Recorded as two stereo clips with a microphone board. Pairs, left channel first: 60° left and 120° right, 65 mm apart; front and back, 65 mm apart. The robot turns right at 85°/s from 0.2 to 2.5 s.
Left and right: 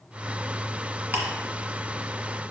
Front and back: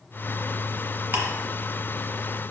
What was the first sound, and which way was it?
Ticking, 155° right.